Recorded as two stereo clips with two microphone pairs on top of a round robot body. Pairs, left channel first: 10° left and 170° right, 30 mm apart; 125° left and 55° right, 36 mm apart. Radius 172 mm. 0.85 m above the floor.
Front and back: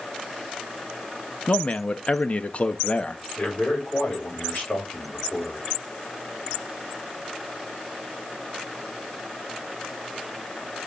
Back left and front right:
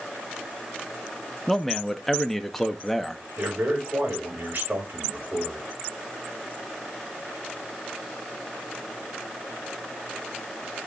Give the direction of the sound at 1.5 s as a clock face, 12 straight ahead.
11 o'clock.